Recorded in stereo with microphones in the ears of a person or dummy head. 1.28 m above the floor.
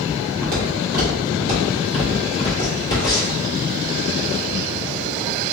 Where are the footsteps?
25° right (ahead or behind), 1.6 m; by 3.4 s 25° left (ahead or behind), 1.4 m.